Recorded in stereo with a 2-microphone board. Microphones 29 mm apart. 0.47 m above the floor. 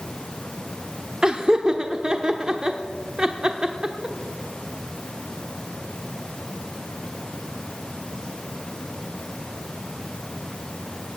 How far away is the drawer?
No drawer in this recording.